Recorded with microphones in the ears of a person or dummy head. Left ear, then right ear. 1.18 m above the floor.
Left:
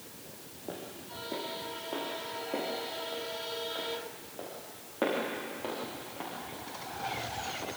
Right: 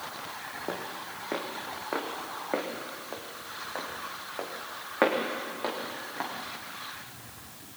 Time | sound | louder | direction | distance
0.7 | footsteps | right 3 dB | 60° right (ahead or behind) | 3 m